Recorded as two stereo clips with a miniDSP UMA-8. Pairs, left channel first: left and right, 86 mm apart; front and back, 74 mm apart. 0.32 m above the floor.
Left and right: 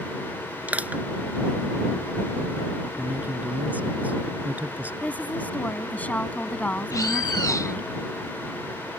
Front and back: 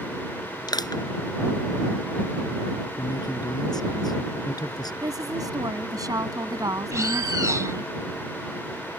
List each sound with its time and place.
0.7 s crushing: 20° right
3.0 s a man speaking: 20° right
5.0 s a woman speaking: 160° left
6.9 s a bird: 140° left